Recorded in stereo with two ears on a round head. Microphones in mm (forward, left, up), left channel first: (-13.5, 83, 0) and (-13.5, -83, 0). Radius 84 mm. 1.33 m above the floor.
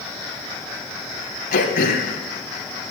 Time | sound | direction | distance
1.5 | throat clearing | 50° left (ahead or behind) | 2 m